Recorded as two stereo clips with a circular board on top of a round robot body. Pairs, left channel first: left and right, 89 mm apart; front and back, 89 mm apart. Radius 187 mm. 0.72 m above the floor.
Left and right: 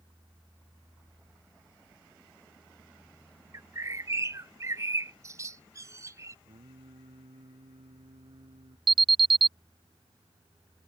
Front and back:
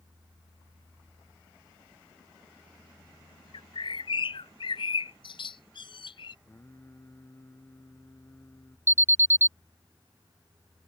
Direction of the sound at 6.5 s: 65° right.